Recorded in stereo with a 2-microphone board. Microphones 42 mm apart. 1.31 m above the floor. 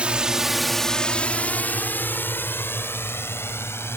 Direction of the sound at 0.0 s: 25° right (ahead or behind).